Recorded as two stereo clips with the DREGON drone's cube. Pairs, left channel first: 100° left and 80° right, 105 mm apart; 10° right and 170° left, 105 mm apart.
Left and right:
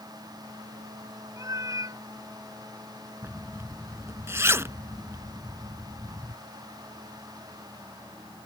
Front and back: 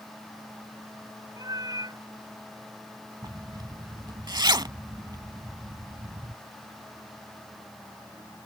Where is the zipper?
140° right.